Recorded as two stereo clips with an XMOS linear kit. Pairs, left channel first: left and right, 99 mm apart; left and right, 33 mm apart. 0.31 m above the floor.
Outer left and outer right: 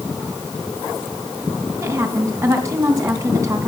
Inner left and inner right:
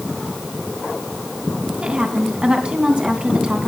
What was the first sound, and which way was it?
A woman speaking, 30° right (ahead or behind).